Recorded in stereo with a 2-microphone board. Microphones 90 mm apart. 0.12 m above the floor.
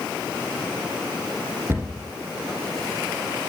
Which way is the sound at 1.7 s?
30° right (ahead or behind).